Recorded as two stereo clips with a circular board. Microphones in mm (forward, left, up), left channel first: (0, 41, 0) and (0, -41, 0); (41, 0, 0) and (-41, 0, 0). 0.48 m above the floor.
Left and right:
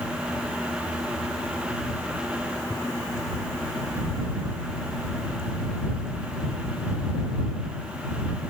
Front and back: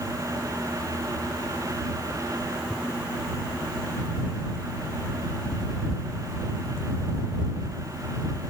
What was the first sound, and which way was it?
Only background noise.